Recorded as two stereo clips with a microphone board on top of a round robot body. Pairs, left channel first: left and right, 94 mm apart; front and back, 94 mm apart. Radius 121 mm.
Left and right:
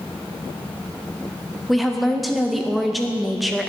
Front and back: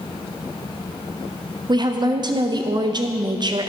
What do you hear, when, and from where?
1.7 s a woman speaking: straight behind, 0.5 m